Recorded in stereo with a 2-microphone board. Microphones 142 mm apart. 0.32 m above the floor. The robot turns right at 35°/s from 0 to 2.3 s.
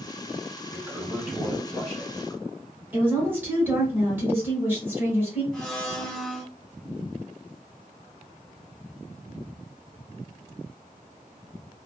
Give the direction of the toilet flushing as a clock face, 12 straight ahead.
1 o'clock.